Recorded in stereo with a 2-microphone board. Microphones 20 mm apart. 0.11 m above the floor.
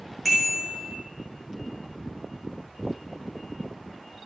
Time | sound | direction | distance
0.2 | a bicycle bell | centre (ahead or behind) | 5 m